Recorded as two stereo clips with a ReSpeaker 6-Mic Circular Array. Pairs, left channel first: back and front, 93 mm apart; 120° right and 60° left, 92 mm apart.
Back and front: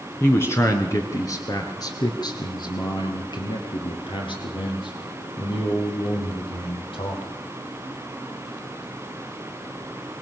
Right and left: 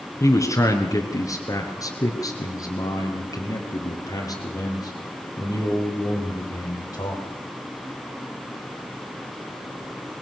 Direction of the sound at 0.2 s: 135° right.